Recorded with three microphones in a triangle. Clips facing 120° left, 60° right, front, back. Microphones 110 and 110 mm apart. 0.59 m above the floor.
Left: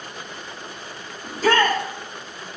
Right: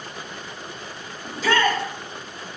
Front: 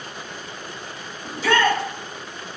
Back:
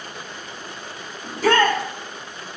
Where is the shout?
155° left, 2.5 m.